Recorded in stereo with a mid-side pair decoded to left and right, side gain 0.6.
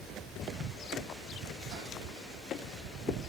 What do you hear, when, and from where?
1.7 s a whoosh: 70° right, 8.5 m